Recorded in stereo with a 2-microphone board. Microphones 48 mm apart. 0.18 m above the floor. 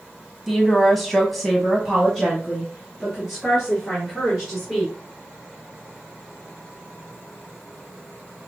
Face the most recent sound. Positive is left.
turn(degrees=5)  # may be behind; listen again after turning